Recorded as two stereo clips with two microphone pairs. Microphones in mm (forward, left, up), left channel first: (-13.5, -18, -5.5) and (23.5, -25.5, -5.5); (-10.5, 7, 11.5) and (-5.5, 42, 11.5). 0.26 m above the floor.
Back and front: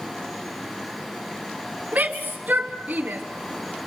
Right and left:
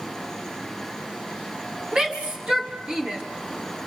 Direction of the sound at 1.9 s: 30° left.